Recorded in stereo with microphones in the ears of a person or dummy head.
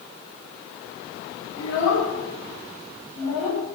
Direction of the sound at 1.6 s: 85° left.